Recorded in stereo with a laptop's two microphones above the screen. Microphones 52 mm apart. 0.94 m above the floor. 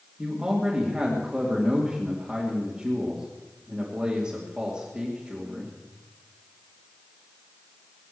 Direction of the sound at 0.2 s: 15° right (ahead or behind).